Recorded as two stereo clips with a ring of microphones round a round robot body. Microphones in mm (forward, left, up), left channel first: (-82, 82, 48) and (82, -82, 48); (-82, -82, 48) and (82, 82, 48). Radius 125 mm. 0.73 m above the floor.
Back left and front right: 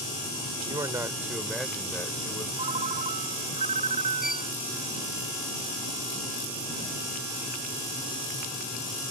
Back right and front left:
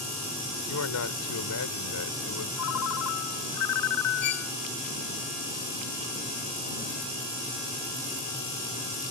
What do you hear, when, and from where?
0.7 s a man speaking: 120° right; by 2.5 s 150° right
2.6 s a ringtone: 110° right
4.2 s a violin: 135° right